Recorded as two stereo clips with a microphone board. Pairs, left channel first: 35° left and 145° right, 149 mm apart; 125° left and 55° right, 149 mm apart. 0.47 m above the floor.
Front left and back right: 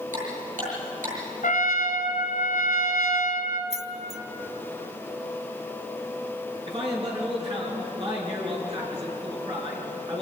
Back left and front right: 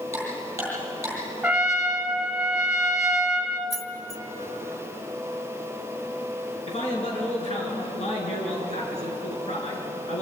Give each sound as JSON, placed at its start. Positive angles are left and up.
{"t": 0.1, "sound": "ticking", "azimuth_deg": -130, "distance_m": 8.0}
{"t": 1.4, "sound": "a trumpet", "azimuth_deg": 30, "distance_m": 1.4}
{"t": 3.7, "sound": "keys jangling", "azimuth_deg": -120, "distance_m": 0.7}
{"t": 6.7, "sound": "a man speaking", "azimuth_deg": 165, "distance_m": 6.5}